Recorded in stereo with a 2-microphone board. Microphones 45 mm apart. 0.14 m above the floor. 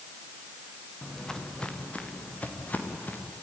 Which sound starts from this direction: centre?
Footsteps, at 1.0 s.